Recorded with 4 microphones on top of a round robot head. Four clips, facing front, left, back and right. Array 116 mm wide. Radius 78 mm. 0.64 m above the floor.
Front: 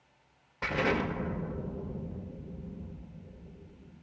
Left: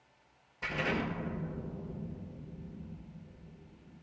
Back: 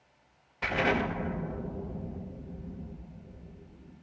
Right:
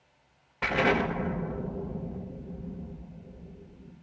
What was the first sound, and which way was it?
An explosion, 60° right.